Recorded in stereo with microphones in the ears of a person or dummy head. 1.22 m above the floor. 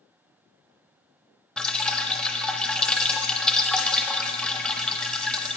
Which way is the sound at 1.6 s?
5° left (ahead or behind).